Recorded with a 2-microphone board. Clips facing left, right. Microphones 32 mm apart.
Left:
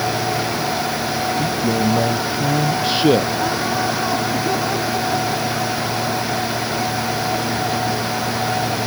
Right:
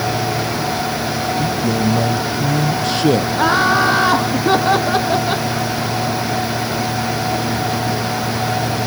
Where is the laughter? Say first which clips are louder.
Right 6 dB; 75° right (ahead or behind).